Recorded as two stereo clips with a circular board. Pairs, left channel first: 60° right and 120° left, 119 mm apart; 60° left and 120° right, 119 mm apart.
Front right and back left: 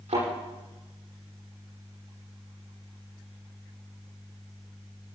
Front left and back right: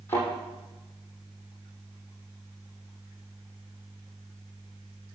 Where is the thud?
130° left, 8.5 m.